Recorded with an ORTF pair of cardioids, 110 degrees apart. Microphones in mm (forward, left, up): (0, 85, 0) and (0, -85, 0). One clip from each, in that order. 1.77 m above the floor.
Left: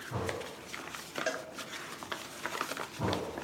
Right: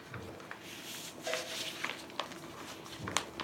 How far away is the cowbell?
About 0.7 m.